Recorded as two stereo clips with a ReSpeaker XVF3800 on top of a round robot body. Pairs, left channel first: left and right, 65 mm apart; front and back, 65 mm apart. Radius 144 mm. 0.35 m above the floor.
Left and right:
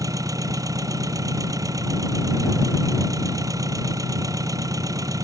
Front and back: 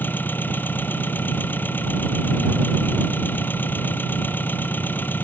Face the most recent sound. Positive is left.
turn(degrees=-60)